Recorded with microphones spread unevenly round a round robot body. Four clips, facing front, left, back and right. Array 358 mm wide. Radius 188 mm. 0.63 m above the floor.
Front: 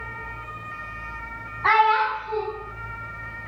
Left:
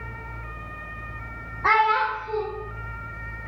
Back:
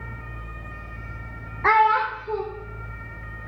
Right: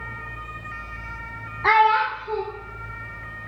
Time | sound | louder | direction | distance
1.6 | a child speaking | right 3 dB, even | 170° right | 0.7 m